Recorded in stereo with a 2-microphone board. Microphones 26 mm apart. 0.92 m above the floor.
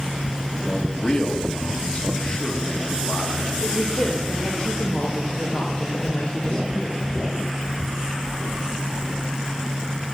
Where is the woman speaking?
65° left (ahead or behind), 1.2 m.